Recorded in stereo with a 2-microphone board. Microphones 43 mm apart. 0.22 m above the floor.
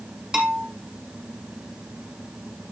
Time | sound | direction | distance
0.3 | a bell | 20° right (ahead or behind) | 3 m